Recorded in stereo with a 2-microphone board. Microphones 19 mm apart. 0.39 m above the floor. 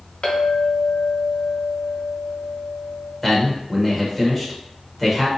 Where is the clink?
60° left (ahead or behind), 1.1 m.